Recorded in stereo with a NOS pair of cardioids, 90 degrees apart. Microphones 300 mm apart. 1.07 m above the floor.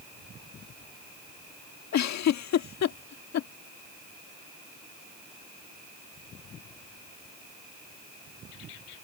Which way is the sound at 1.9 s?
65° left.